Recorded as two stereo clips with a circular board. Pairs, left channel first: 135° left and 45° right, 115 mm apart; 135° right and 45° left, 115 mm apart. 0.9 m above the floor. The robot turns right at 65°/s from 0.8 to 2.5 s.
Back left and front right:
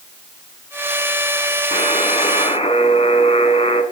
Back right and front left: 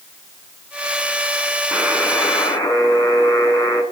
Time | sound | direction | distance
1.7 | a buzzer | 120° left | 8 m